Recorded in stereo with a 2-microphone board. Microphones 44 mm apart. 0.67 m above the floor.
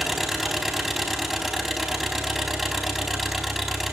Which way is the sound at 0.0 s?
Centre (ahead or behind).